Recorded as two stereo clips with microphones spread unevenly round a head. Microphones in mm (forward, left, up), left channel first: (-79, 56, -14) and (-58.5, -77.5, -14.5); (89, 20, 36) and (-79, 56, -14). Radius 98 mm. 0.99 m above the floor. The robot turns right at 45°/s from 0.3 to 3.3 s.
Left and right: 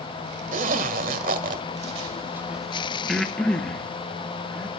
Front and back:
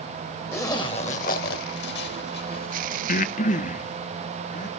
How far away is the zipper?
About 1.7 m.